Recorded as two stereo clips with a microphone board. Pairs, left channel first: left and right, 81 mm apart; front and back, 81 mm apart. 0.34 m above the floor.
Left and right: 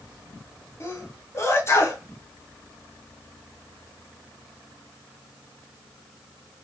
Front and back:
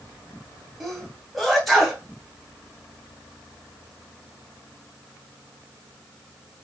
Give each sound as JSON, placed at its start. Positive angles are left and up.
{"t": 0.8, "sound": "a sneeze", "azimuth_deg": 90, "distance_m": 1.2}